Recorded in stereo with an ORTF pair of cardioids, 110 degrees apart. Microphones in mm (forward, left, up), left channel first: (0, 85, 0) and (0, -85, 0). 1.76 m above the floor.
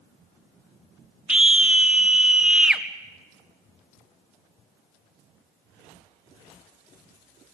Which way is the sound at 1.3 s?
5° right.